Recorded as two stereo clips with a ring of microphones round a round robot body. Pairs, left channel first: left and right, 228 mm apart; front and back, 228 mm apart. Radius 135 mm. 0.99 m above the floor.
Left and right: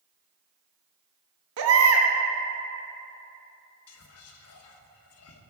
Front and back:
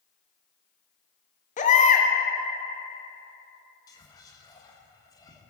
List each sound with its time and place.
1.6 s a baby crying: 60° right, 1.1 m
3.9 s whispering: 75° left, 1.0 m